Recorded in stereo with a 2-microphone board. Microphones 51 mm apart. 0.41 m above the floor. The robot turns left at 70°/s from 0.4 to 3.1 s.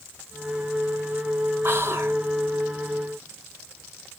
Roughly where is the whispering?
Right.